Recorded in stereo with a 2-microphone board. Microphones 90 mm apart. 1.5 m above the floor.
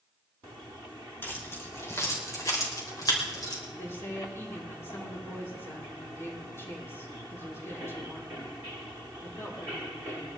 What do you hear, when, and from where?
1.2 s keys jangling: 25° left (ahead or behind), 4 m; by 3.6 s 50° left (ahead or behind), 5.5 m
3.7 s a woman speaking: 30° left (ahead or behind), 5 m